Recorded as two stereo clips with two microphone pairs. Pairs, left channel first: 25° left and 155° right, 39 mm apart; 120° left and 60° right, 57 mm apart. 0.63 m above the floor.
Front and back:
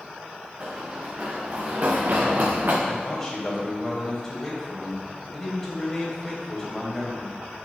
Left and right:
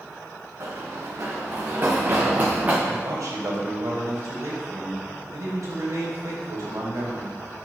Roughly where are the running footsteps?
Right.